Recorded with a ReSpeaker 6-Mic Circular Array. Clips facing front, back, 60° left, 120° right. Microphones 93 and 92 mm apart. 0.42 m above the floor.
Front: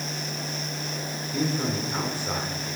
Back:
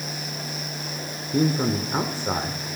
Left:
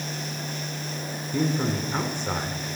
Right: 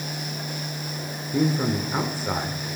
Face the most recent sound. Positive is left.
turn(degrees=165)